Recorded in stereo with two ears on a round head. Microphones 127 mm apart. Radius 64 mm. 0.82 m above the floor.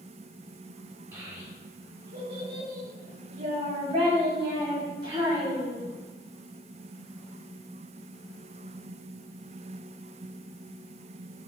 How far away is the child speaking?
About 1.8 m.